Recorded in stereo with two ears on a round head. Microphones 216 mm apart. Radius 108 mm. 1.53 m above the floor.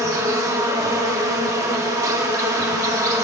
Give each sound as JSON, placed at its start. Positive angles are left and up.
{"t": 0.0, "sound": "an insect", "side_deg": -15, "distance_m": 1.3}